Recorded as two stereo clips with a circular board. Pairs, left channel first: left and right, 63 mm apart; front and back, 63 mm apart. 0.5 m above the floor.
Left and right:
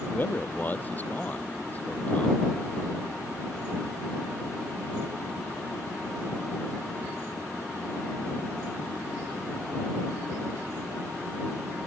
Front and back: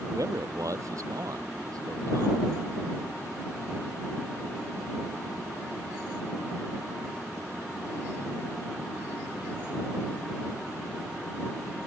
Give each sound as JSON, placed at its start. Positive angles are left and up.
{"t": 0.1, "sound": "a man speaking", "azimuth_deg": 150}